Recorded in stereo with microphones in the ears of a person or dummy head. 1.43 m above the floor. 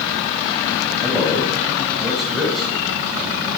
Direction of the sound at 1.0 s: Centre (ahead or behind).